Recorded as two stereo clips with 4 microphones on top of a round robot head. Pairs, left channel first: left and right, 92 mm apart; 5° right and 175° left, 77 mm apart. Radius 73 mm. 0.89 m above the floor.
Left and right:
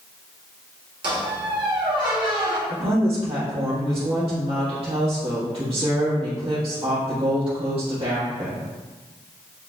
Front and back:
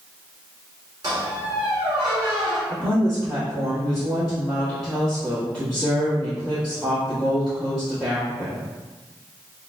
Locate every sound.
1.0 s a squeak: 120° right, 1.6 m
2.7 s a woman speaking: 85° right, 1.4 m